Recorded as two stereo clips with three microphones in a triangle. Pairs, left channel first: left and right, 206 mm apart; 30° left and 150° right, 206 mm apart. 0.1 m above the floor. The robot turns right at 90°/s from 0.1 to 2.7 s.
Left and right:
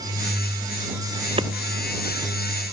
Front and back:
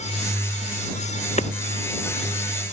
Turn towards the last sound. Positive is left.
turn(degrees=90)